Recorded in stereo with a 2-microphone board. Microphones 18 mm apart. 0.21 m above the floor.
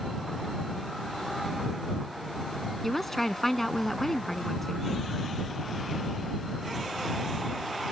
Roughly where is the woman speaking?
Centre.